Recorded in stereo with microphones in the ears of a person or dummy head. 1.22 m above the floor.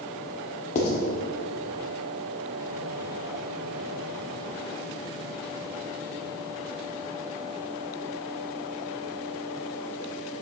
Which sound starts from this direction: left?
Writing, at 0.8 s.